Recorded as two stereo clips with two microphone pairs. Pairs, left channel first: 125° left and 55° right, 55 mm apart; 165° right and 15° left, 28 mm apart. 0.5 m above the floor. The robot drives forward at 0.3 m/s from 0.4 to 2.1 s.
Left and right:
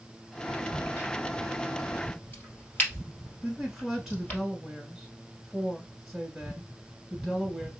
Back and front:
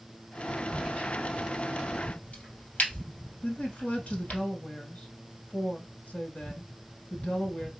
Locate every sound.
0.7 s a crack: straight behind, 2 m
3.4 s a woman speaking: 145° right, 2 m